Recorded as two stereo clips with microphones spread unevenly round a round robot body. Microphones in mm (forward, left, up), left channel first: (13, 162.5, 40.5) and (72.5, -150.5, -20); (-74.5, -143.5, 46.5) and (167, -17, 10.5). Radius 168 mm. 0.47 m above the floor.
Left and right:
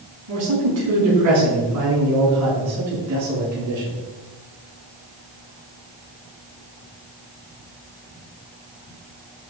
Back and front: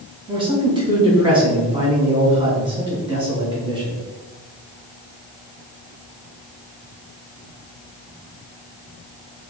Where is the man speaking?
45° right, 3.5 m.